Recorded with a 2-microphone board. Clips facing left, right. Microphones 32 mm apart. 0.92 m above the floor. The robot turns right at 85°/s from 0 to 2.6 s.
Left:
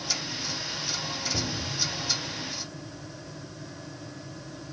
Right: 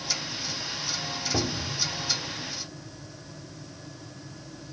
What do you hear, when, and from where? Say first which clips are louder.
1.3 s a cupboard door: right 2 dB; 70° right, 1.2 m; by 1.8 s 30° right, 1.2 m